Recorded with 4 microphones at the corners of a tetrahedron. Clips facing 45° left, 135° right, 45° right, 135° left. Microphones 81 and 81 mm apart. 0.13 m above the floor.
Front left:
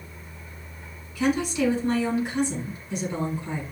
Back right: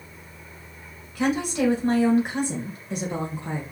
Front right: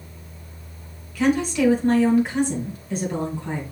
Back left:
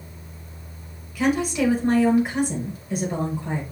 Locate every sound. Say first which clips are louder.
1.1 s a woman speaking: even, front right 2 dB; 150° right, 2.5 m